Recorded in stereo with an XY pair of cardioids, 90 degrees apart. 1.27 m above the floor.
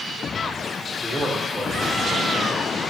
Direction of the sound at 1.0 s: 10° right.